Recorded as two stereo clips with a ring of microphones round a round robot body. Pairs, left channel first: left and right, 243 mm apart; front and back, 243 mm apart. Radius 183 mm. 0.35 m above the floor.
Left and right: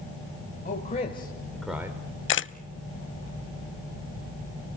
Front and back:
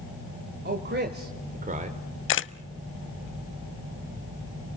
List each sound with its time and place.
0.7 s a man speaking: 145° left, 1.9 m; by 2.0 s 150° right, 1.3 m
2.3 s a camera shutter: 45° left, 0.6 m